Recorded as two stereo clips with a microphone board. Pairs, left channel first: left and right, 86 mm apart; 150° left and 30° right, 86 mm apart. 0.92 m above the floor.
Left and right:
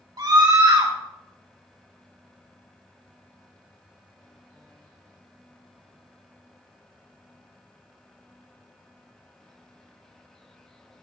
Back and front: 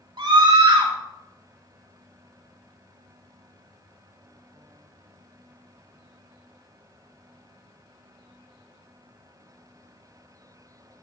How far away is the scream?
About 3.5 m.